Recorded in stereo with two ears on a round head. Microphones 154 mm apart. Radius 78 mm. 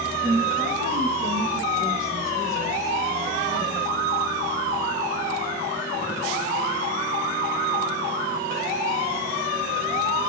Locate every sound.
0.2 s a woman speaking: 25° right (ahead or behind), 6.5 m